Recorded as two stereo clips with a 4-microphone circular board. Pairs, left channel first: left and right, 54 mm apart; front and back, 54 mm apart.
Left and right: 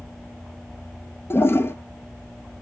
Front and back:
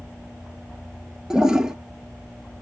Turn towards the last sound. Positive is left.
turn(degrees=105)